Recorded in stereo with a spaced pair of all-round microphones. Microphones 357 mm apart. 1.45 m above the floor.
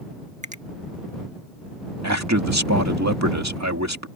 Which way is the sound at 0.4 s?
20° right (ahead or behind).